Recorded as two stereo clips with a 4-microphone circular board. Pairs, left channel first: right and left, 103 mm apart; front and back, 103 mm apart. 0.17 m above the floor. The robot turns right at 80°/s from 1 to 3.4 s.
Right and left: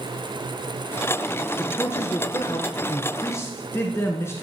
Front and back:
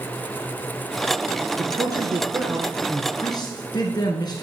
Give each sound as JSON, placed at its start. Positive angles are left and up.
{"t": 1.6, "sound": "a man speaking", "azimuth_deg": -175, "distance_m": 2.0}